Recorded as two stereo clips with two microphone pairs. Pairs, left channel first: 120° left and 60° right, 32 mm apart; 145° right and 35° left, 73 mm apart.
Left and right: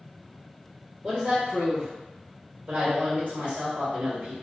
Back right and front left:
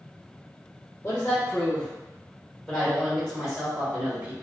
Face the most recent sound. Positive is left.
turn(degrees=-30)